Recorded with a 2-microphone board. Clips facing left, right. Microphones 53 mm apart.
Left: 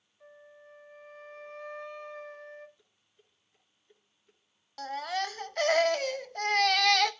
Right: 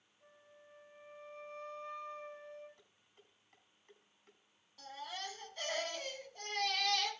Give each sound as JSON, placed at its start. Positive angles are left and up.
{"t": 0.2, "sound": "a flute", "side_deg": 75, "distance_m": 4.0}
{"t": 2.8, "sound": "dishes clattering", "side_deg": -65, "distance_m": 6.0}
{"t": 4.8, "sound": "a baby crying", "side_deg": 85, "distance_m": 1.0}